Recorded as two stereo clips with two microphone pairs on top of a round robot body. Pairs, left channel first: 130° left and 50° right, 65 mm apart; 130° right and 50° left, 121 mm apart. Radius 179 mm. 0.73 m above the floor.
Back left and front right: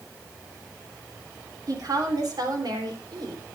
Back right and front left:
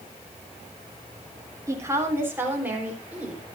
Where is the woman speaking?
15° right, 3.5 m; by 3.4 s 30° right, 5 m.